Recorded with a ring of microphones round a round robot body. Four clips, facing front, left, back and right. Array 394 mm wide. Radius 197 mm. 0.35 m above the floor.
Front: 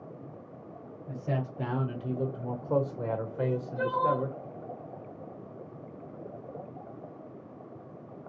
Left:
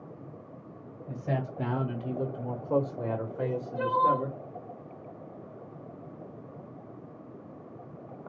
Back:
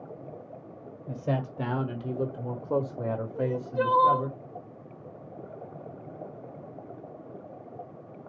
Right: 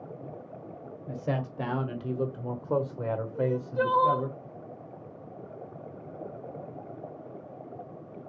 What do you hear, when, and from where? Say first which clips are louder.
1.1 s a man speaking: right 1 dB, back 3 dB; 125° right, 1.7 m; by 4.3 s 30° left, 1.3 m
3.4 s crying: right 4 dB, back 5 dB; 140° right, 1.0 m